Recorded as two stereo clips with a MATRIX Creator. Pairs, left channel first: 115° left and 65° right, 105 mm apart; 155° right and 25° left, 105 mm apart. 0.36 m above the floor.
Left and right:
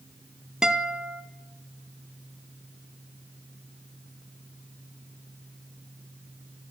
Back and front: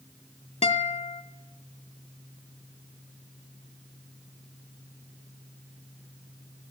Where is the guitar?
150° right, 0.6 m.